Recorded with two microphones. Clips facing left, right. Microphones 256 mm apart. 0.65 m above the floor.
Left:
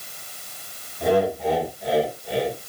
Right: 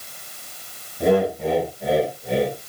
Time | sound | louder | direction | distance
1.0 | laughter | right 2 dB | 60° right (ahead or behind) | 5.5 m